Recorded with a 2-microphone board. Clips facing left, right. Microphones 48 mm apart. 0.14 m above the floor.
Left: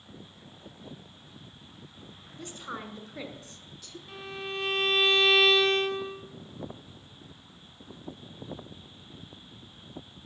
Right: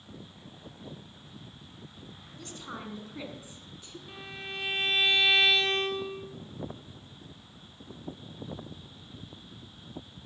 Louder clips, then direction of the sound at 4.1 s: Left 4 dB; 5° right (ahead or behind).